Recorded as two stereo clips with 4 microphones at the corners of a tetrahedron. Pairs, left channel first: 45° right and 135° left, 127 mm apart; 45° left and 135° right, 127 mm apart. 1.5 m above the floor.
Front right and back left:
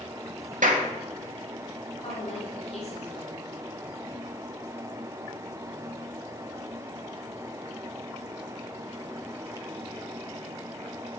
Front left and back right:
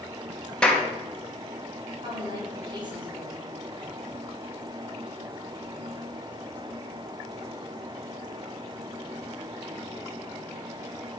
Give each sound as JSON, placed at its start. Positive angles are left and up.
{"t": 0.6, "sound": "a clap", "azimuth_deg": 130, "distance_m": 2.0}
{"t": 2.0, "sound": "a woman speaking", "azimuth_deg": -80, "distance_m": 4.0}